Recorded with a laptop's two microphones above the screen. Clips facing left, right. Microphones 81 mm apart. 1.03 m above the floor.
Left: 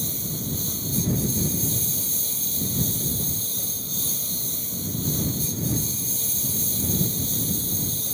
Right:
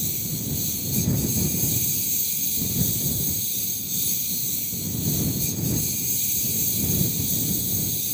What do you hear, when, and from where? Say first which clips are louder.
0.0 s a lawn mower: even; 40° left (ahead or behind)